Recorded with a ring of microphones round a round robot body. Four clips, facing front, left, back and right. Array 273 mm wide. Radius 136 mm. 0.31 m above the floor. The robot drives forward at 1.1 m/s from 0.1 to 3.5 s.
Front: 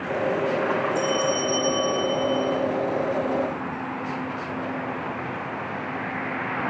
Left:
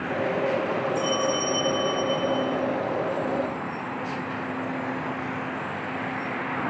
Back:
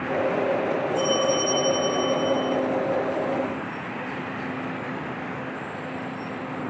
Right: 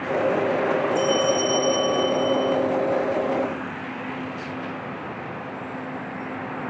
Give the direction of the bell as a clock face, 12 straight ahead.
1 o'clock.